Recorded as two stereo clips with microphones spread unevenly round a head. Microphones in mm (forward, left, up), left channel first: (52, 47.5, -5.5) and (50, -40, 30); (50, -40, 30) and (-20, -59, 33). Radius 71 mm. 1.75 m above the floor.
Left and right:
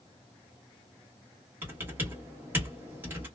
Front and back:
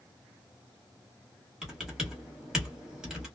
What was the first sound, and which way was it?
Typing on a keyboard, 85° right.